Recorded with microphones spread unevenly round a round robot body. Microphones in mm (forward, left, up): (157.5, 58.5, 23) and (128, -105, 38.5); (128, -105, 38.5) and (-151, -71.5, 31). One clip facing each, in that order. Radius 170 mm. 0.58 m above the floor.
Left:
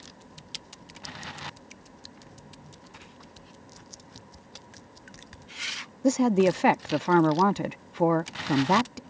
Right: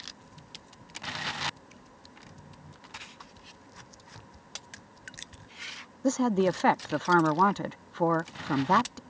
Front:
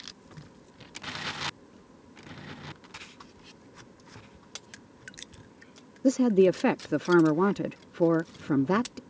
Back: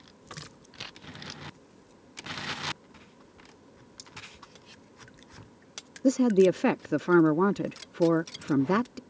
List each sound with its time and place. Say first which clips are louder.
4.0 s cutlery clinking: left 3 dB, front 1 dB; 160° left
6.0 s a woman speaking: left 4 dB, even; 90° left